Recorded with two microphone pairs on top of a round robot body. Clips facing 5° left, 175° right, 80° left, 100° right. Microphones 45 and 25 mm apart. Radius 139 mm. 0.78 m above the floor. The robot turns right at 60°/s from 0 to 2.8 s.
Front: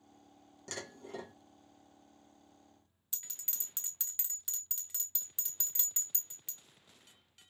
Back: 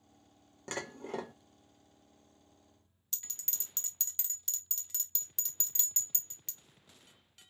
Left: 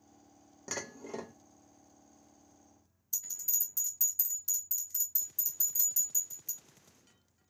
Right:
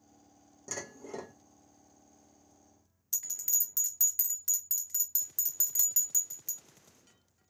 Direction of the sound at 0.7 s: 125° left.